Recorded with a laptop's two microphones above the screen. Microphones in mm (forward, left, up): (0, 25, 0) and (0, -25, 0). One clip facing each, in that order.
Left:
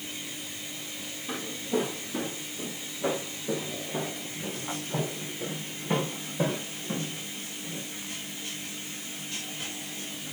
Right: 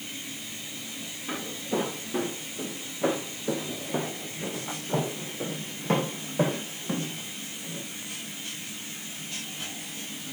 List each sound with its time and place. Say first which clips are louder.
1.3 s footsteps: even; 35° right (ahead or behind), 6 m; by 7.9 s 45° right (ahead or behind), 4.5 m